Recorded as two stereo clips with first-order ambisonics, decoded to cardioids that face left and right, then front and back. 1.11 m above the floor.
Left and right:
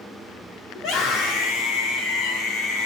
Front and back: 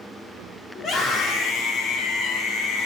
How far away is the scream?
About 3 m.